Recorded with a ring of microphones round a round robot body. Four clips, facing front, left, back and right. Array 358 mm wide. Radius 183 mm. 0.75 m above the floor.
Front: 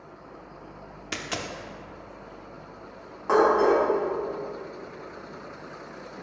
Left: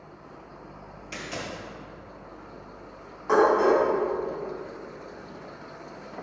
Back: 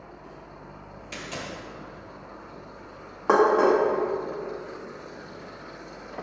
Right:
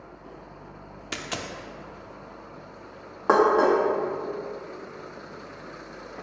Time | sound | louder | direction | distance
1.1 | a dropped coin | right 1 dB, front 2 dB | 50° right | 0.6 m
3.3 | dishes clattering | right 1 dB, back 1 dB | 125° right | 1.0 m